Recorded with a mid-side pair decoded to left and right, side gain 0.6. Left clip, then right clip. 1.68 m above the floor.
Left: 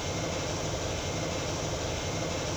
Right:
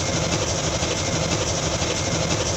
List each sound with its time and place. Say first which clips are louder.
0.0 s an engine running: right 9 dB; 70° right, 1.4 m